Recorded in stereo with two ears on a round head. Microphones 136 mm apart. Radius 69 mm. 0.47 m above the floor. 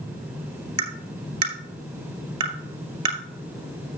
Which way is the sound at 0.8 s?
35° right (ahead or behind).